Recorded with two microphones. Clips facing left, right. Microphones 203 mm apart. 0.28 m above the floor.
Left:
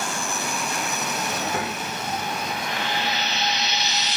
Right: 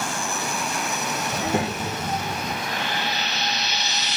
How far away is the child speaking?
About 0.6 m.